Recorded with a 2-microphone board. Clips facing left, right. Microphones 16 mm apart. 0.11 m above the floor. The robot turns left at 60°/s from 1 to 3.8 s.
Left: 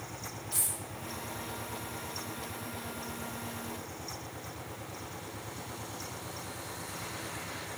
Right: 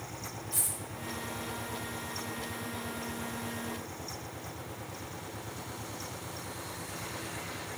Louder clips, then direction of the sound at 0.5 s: Even; 50° left (ahead or behind).